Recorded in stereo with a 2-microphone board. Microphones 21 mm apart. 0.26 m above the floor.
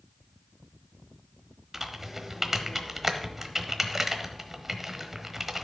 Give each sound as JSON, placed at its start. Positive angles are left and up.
{"t": 1.7, "sound": "typing on a keyboard", "side_deg": -15, "distance_m": 1.0}